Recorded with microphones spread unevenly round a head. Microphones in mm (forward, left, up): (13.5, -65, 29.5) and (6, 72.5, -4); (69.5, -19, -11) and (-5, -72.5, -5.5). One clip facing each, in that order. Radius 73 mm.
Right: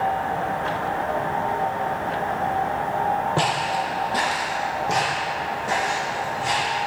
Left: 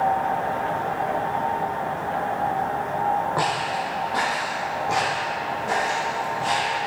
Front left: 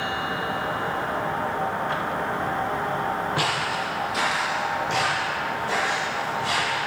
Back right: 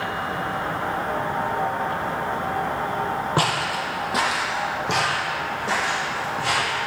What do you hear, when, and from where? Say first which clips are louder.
3.4 s footsteps: right 2 dB, back right 2 dB; 125° right, 1.5 m; by 6.8 s 160° right, 3.5 m